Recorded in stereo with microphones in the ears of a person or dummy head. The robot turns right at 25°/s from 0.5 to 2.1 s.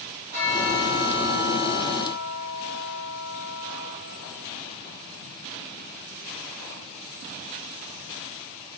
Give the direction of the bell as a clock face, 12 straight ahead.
5 o'clock.